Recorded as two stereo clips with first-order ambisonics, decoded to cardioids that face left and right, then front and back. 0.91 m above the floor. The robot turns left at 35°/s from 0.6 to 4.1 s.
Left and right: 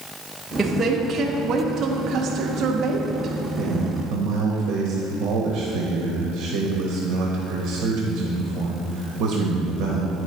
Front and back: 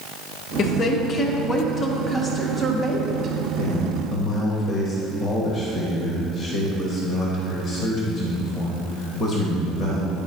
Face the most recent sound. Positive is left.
turn(degrees=-60)